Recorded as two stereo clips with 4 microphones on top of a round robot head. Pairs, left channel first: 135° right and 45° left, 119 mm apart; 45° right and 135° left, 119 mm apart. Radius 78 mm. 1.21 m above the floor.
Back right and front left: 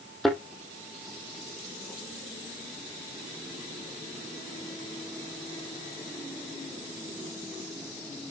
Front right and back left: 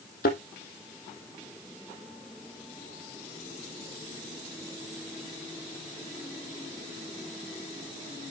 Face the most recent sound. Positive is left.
turn(degrees=-45)